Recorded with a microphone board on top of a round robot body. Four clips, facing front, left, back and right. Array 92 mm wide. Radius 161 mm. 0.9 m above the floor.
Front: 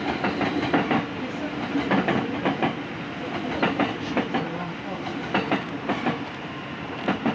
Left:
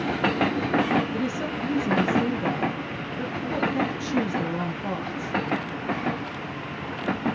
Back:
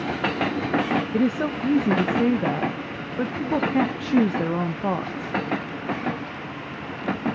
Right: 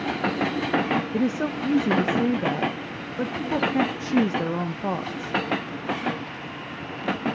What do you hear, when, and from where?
1.1 s a woman speaking: 155° right, 0.7 m